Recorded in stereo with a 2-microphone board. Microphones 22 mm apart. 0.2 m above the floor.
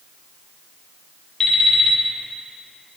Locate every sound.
1.4 s an alarm clock: 40° left (ahead or behind), 1.9 m